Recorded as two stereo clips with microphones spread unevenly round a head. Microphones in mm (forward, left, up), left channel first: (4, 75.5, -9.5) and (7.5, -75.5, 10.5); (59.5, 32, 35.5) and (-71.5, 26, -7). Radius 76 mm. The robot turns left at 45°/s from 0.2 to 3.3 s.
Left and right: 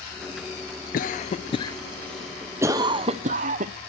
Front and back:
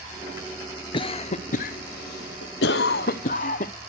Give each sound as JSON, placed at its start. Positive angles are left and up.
{"t": 0.9, "sound": "a cough", "azimuth_deg": 65, "distance_m": 0.7}